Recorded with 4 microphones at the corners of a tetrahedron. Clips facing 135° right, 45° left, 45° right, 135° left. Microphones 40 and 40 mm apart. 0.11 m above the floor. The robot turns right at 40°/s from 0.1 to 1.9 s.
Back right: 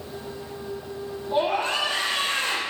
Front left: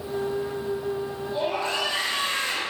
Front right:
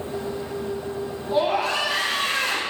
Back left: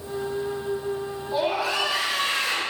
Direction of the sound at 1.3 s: 105° right.